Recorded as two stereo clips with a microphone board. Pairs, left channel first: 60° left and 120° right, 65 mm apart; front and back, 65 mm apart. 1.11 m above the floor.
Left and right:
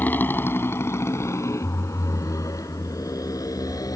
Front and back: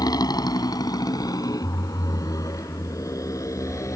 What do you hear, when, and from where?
0.0 s a motorcycle: straight ahead; by 4.0 s 35° left